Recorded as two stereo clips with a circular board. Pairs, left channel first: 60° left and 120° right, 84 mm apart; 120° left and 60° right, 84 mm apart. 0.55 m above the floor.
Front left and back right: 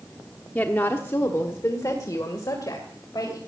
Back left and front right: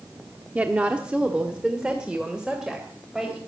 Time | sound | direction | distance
0.6 | a woman speaking | straight ahead | 1.0 m